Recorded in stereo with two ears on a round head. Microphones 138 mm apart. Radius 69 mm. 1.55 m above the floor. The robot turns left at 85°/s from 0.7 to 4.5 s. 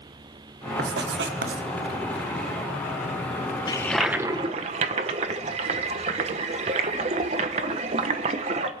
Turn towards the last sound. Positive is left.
turn(degrees=-45)